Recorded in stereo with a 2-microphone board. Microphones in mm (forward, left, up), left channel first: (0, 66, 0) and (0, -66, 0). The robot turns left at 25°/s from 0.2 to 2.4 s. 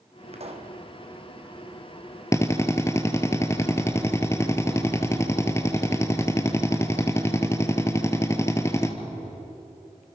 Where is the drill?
25° left (ahead or behind), 1.6 m; by 8.9 s 20° left (ahead or behind), 1.6 m.